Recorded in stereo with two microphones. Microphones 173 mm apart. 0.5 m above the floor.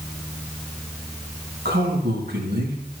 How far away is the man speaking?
About 3.5 m.